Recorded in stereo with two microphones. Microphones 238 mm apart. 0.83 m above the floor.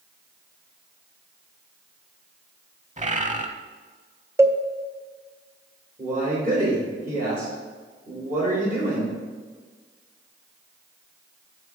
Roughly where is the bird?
Right.